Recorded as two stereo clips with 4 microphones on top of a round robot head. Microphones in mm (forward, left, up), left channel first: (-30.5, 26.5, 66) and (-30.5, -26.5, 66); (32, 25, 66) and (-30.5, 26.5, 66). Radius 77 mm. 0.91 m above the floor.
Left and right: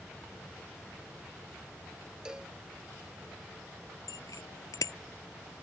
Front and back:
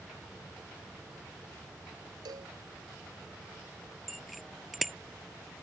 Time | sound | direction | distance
2.2 | a cowbell | 165° right | ?
4.1 | a bicycle bell | 90° left | ?